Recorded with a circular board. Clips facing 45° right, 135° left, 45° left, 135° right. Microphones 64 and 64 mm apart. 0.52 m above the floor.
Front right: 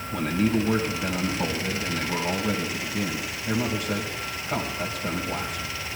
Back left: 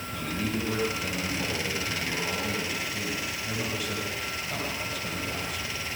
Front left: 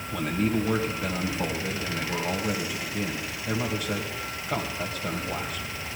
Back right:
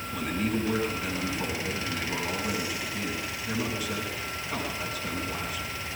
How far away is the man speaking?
About 2.5 m.